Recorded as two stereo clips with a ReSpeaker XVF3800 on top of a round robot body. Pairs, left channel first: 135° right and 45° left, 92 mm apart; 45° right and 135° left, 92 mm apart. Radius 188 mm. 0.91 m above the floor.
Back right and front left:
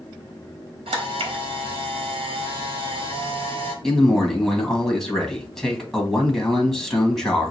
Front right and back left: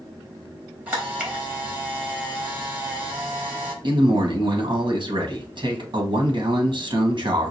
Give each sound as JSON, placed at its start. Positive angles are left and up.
{"t": 0.9, "sound": "a camera shutter", "azimuth_deg": 60, "distance_m": 1.2}
{"t": 3.8, "sound": "a man speaking", "azimuth_deg": 135, "distance_m": 1.7}